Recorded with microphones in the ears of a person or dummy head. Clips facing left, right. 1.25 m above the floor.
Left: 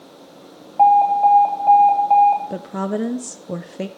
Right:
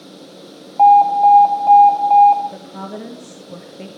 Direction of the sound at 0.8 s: 20° left (ahead or behind).